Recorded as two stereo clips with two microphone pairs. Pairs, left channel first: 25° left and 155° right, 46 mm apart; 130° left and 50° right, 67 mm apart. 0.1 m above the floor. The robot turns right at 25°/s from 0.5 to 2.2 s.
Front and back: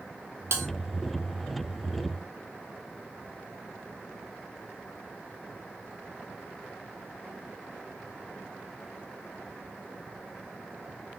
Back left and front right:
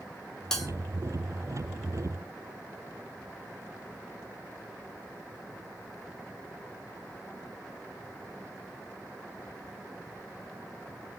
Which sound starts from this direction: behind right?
A bell, at 0.5 s.